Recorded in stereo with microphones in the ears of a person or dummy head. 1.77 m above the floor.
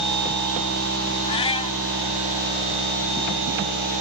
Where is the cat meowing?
30° left (ahead or behind).